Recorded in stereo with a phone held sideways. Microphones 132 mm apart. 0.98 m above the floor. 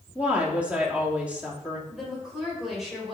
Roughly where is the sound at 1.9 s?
Centre.